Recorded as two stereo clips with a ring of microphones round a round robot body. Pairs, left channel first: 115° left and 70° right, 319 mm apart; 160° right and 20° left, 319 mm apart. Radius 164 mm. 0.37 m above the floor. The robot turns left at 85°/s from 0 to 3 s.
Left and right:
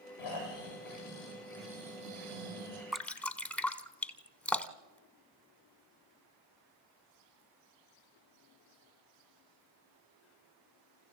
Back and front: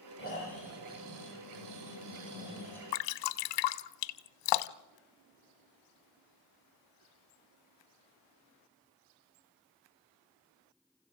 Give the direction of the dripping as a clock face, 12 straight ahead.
5 o'clock.